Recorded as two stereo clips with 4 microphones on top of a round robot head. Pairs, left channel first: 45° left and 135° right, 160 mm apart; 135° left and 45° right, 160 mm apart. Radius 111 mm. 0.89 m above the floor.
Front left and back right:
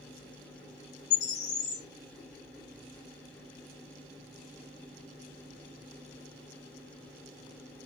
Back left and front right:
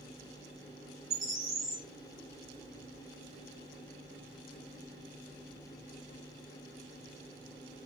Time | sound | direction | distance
1.1 | a bird | 40° left | 3.5 m